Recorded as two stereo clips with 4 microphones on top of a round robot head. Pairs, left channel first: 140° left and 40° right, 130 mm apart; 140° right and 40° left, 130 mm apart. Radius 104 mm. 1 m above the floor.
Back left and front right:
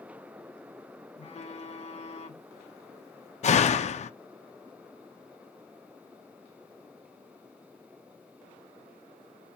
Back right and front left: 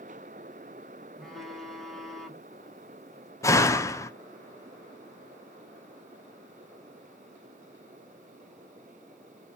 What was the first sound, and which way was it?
A phone buzzing, 130° left.